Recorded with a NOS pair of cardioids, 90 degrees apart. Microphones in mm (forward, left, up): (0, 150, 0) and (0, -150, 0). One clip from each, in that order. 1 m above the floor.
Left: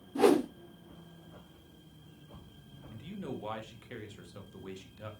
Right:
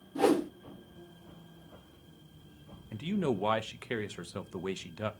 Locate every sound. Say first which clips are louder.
0.1 s a whoosh: left 2 dB; 15° left, 1.4 m
2.9 s a man speaking: right 10 dB; 60° right, 0.9 m